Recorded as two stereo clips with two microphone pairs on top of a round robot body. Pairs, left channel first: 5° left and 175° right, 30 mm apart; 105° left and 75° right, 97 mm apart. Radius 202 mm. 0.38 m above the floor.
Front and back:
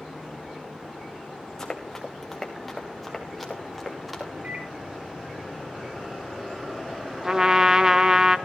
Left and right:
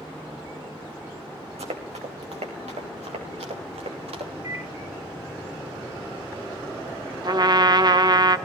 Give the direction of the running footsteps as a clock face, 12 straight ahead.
2 o'clock.